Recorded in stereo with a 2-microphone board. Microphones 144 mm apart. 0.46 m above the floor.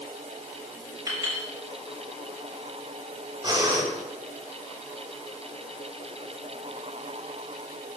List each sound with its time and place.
1.1 s a clink: 25° right (ahead or behind), 6 m
3.4 s breathing: 30° right (ahead or behind), 2 m